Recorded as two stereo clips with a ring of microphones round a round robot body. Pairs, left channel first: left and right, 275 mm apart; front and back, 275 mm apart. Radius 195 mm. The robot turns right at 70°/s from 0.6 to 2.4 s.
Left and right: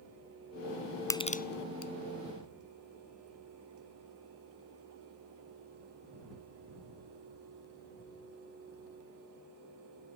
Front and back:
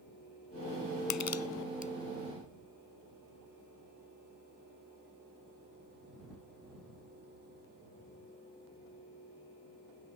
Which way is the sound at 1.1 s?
10° left.